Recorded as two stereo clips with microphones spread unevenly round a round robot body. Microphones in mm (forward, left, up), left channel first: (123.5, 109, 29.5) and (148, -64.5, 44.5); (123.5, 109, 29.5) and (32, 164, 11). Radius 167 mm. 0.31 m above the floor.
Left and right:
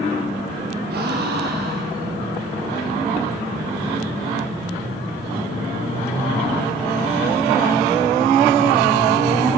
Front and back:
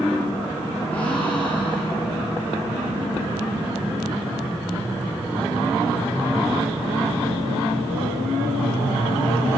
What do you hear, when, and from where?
0.9 s a gasp: 115° right, 4 m